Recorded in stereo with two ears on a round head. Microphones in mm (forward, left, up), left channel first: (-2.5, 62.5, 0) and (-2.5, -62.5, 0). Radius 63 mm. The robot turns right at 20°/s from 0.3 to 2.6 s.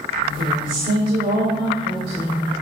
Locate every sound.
0.4 s a woman speaking: 110° right, 3 m; by 2.5 s 65° right, 3 m